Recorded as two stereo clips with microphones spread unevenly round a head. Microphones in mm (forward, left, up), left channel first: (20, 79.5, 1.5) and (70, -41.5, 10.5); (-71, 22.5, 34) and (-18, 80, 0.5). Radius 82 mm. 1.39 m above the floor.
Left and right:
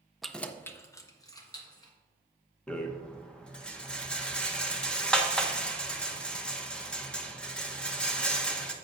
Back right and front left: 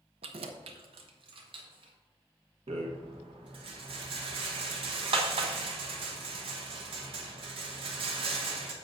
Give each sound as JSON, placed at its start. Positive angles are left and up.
{"t": 0.2, "sound": "keys jangling", "azimuth_deg": 20, "distance_m": 0.6}
{"t": 2.7, "sound": "a rattle", "azimuth_deg": 30, "distance_m": 1.2}